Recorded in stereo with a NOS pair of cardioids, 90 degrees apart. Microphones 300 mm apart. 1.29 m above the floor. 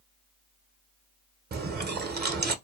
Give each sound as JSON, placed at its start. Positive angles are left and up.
{"t": 1.5, "sound": "chewing", "azimuth_deg": -30, "distance_m": 0.8}